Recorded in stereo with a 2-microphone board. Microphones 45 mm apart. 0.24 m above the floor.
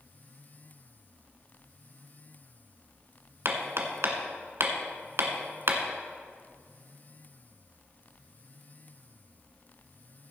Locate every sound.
3.5 s hammering: 65° right (ahead or behind), 1.4 m